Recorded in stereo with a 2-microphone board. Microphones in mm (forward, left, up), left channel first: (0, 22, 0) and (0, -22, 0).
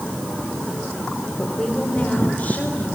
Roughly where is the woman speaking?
Left.